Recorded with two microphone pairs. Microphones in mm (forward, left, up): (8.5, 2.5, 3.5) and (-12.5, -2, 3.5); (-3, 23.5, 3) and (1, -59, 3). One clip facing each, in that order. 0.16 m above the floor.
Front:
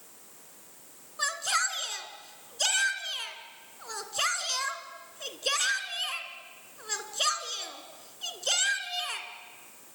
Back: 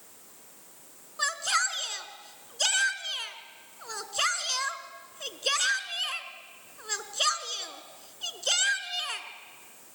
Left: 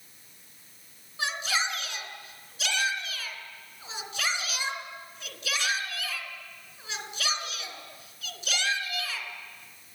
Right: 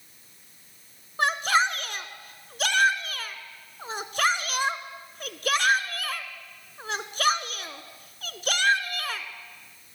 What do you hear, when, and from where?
1.2 s a shout: 85° right, 2 m